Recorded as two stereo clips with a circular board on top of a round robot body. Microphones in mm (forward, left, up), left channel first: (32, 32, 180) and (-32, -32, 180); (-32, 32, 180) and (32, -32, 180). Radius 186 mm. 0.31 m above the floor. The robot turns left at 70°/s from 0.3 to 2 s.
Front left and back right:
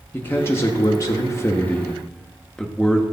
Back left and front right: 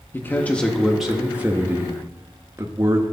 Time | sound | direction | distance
0.1 | a man speaking | 90° left | 1.1 m